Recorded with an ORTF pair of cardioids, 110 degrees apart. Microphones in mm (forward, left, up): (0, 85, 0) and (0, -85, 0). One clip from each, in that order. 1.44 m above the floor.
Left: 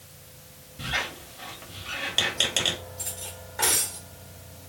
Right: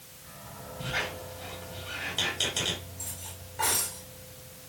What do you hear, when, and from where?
0.8 s a squeak: 65° left, 3 m
3.0 s cutlery clinking: 55° left, 3 m